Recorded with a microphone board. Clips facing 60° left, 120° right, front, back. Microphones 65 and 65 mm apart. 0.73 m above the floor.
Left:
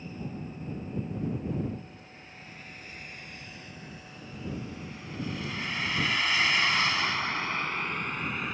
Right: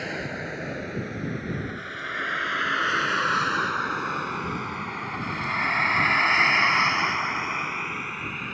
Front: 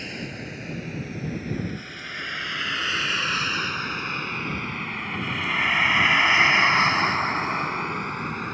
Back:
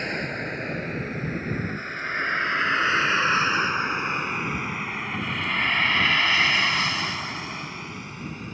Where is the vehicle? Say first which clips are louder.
Right 8 dB, back 6 dB; 135° right; by 8.6 s 30° right.